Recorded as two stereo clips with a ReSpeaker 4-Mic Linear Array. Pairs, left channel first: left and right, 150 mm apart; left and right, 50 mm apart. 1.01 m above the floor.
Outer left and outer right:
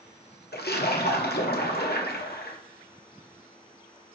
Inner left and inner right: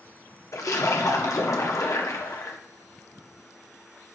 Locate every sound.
0.5 s a splash: 80° left, 1.4 m